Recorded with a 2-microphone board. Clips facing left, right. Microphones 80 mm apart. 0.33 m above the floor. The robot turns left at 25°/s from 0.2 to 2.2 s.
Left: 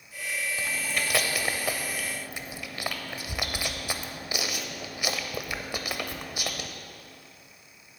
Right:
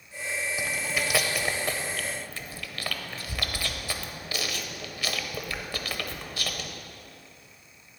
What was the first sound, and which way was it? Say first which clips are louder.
Chewing: right 2 dB; 15° right (ahead or behind).